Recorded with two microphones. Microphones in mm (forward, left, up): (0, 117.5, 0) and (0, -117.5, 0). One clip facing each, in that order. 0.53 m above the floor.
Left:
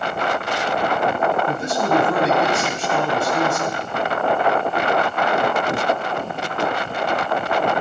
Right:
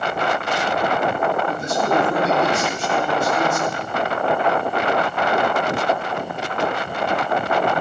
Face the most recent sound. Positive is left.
turn(degrees=75)  # may be behind; listen again after turning